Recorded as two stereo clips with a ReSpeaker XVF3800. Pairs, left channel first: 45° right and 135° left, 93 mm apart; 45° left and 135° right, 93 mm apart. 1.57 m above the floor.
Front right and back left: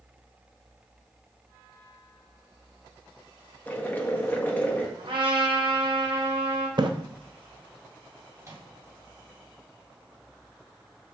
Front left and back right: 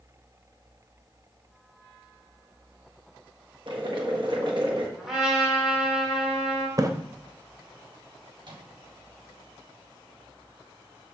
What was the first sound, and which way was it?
Boiling, 115° right.